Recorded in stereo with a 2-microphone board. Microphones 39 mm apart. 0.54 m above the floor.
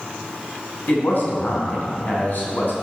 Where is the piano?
No piano in this recording.